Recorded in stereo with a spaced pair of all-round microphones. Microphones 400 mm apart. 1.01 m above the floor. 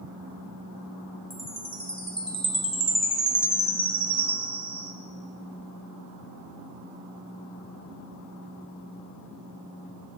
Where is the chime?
55° right (ahead or behind), 3.5 m.